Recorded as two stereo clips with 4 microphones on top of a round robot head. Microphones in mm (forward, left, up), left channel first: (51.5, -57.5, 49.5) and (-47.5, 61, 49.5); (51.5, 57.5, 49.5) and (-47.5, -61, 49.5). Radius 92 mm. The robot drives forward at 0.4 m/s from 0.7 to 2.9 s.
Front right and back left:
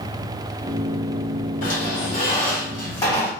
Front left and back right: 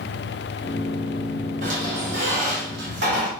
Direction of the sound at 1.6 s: 90° right.